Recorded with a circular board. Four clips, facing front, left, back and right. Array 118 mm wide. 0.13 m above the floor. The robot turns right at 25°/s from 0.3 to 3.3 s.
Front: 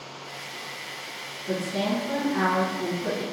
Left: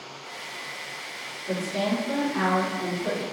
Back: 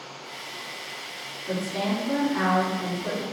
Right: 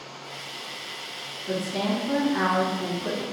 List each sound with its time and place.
1.5 s a woman speaking: 90° right, 1.2 m; by 3.2 s 50° right, 1.2 m